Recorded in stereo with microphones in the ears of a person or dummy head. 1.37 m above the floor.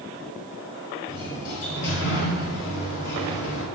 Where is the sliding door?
70° left (ahead or behind), 10 m.